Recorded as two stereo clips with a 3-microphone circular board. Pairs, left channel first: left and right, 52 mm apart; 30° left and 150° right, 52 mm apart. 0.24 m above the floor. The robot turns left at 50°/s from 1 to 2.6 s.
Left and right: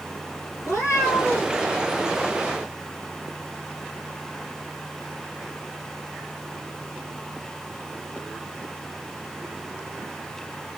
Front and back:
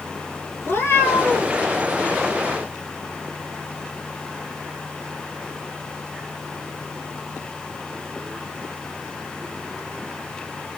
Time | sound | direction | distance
0.6 | a cat meowing | 65° left | 3 m